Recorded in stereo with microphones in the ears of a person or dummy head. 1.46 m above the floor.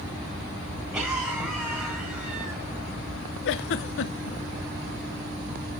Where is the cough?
10° right (ahead or behind), 7 m.